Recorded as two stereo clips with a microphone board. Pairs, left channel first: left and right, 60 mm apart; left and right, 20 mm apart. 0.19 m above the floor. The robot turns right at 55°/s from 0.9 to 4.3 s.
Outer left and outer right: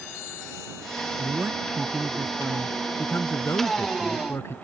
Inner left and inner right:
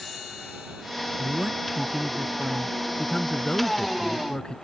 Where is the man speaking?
55° right; by 4.5 s 115° left.